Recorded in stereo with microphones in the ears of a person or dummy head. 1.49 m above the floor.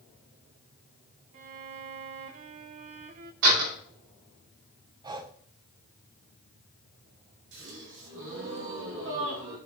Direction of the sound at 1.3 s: 25° right (ahead or behind).